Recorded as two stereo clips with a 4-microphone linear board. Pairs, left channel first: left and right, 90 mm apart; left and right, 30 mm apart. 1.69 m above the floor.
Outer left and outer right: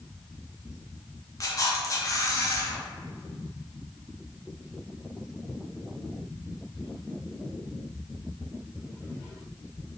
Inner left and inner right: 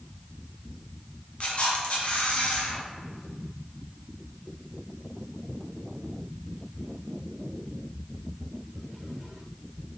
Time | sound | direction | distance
1.4 | a camera shutter | 40° left (ahead or behind) | 0.9 m